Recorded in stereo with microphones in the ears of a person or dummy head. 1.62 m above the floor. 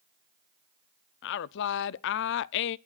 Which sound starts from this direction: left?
A woman speaking, at 1.2 s.